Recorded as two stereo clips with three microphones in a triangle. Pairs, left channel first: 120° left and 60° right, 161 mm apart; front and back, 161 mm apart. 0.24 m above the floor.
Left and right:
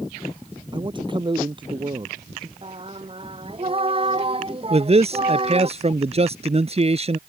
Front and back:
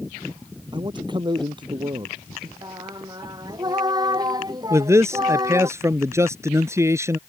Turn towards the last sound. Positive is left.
turn(degrees=-110)